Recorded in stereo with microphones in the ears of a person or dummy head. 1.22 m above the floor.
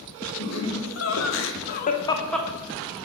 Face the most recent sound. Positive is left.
turn(degrees=0)  # may be behind; listen again after turning